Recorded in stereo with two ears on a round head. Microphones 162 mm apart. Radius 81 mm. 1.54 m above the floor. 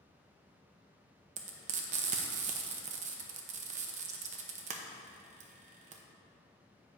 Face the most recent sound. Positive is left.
turn(degrees=-40)  # may be behind; listen again after turning